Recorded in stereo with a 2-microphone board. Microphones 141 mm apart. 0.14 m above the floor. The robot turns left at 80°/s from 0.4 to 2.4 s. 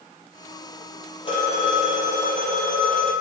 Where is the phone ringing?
45° left, 2.5 m; by 3.1 s 50° right, 2.5 m.